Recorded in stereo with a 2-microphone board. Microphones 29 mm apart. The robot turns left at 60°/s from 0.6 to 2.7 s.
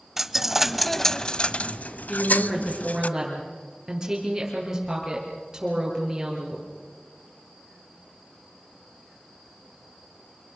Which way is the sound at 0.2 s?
170° right.